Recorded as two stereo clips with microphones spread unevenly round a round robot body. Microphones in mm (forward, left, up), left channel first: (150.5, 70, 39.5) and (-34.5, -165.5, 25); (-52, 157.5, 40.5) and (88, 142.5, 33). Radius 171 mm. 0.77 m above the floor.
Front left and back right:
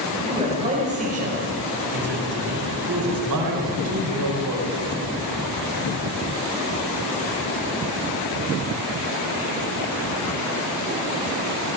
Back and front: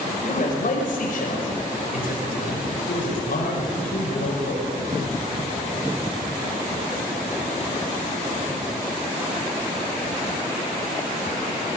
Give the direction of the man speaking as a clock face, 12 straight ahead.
7 o'clock.